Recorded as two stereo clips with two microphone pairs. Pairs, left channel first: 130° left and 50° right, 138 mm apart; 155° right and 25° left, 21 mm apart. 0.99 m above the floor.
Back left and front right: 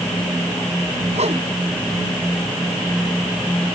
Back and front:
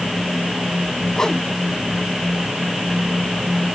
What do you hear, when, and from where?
1.2 s a whoosh: 85° right